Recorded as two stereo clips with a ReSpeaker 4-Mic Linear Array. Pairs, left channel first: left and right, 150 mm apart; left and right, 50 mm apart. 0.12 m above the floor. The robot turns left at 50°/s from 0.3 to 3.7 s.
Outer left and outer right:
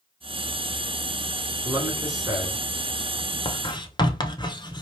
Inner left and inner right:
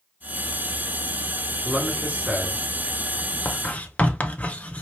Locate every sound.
1.6 s a man speaking: 20° right (ahead or behind), 1.4 m; by 2.6 s 25° right (ahead or behind), 1.4 m
3.5 s writing: 35° left (ahead or behind), 0.7 m; by 4.8 s 30° left (ahead or behind), 0.7 m